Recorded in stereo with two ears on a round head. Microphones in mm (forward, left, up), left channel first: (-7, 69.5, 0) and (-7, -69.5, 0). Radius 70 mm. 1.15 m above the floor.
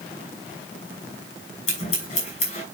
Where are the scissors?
45° left (ahead or behind), 6.5 m.